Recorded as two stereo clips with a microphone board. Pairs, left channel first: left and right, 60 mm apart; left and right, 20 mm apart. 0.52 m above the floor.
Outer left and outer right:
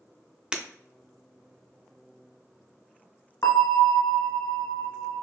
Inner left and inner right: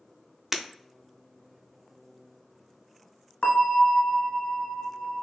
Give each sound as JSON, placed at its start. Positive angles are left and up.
{"t": 0.5, "sound": "breaking glass", "side_deg": -15, "distance_m": 0.6}
{"t": 3.4, "sound": "a bell", "side_deg": 75, "distance_m": 0.8}